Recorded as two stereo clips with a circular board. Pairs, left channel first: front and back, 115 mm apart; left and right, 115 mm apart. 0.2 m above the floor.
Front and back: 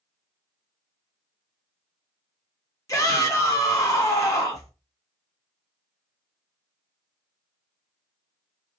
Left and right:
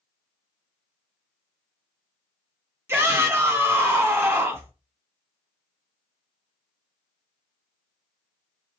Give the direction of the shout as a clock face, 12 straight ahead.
1 o'clock.